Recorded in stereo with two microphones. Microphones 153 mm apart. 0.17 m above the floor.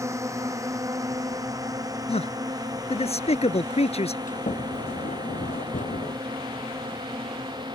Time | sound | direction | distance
0.0 | a drone | 20° right (ahead or behind) | ?
2.1 | a man speaking | 45° left (ahead or behind) | ?
4.3 | a sliding door | 60° left (ahead or behind) | ?